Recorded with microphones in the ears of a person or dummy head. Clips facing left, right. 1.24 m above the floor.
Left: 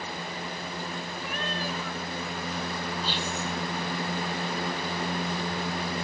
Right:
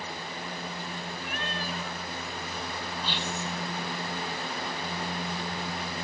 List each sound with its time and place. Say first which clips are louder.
1.2 s a cat meowing: left 3 dB; 75° left (ahead or behind), 2.5 m
3.0 s whispering: left 2 dB; 35° left (ahead or behind), 4.5 m